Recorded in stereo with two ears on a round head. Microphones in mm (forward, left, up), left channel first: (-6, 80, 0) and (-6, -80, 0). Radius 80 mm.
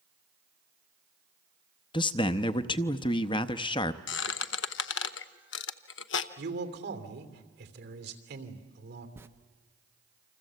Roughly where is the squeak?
Left.